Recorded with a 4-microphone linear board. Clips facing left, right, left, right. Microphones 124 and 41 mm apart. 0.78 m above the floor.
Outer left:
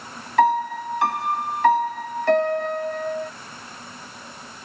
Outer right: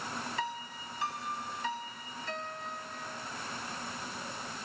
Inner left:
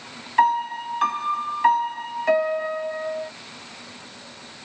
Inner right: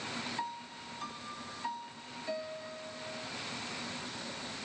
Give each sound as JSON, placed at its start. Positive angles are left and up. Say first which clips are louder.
{"t": 0.4, "sound": "a piano", "louder": "outer left 20 dB, inner left 21 dB", "side_deg": 70}